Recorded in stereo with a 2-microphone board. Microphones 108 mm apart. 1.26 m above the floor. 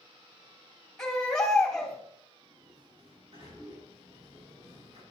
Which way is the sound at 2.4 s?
65° right (ahead or behind).